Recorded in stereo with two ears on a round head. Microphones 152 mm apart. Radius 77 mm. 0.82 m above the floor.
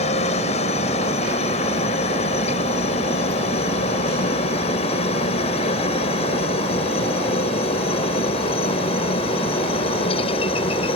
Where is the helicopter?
45° left (ahead or behind); by 11.0 s 35° left (ahead or behind).